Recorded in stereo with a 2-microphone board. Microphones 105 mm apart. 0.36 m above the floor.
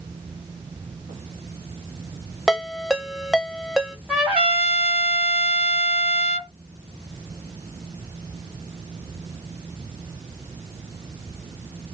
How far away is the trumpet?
About 1.8 m.